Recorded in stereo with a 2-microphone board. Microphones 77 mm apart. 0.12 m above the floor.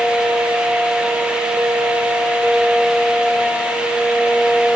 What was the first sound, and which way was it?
Only background noise.